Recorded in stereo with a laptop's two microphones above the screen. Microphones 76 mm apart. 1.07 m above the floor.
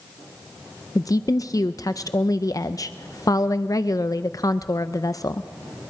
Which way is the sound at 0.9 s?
50° left (ahead or behind).